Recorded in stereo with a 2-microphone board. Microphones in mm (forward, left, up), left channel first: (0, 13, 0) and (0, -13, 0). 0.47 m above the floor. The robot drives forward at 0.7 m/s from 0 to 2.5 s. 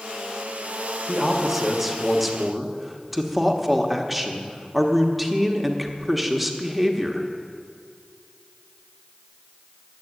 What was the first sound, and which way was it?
A man speaking, 5° right (ahead or behind).